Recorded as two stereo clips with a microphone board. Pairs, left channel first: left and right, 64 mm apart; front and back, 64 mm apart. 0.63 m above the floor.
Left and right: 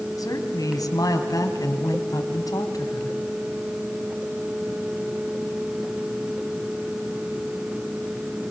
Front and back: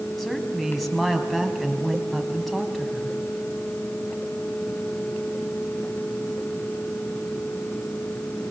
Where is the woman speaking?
85° left, 4.5 m.